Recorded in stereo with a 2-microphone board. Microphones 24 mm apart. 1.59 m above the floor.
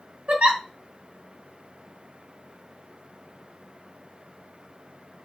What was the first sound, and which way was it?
A giggle, 65° right (ahead or behind).